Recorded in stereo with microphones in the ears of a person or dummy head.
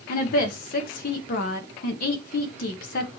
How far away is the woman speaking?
About 1.5 m.